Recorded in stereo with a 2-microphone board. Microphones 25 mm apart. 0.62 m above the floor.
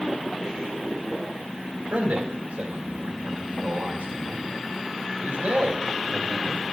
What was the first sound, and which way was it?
A man speaking, 70° right (ahead or behind).